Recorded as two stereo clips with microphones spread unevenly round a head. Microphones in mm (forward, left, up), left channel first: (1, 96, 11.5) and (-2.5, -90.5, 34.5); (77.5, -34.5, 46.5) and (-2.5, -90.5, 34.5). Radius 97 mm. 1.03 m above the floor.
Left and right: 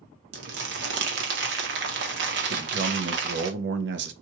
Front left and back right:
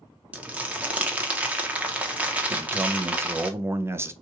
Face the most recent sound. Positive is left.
turn(degrees=-90)